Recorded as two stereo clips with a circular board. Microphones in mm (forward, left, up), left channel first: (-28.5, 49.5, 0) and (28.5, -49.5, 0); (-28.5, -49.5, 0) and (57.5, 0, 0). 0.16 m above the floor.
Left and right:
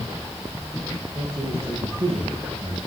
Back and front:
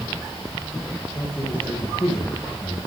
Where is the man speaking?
80° right, 5 m.